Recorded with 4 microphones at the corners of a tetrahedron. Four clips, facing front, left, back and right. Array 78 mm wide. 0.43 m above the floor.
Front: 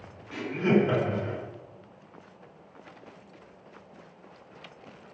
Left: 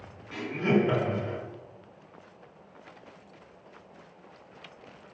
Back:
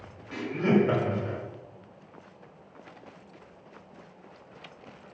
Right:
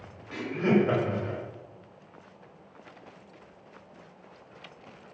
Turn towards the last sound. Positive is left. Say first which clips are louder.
# right 1 dB, even
turn(degrees=-140)